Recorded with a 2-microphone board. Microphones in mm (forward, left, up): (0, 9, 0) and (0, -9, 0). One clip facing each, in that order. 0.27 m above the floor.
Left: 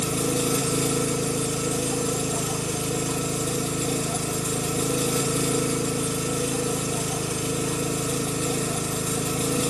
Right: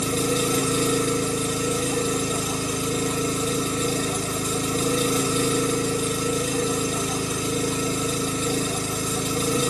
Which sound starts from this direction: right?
An engine running, at 0.0 s.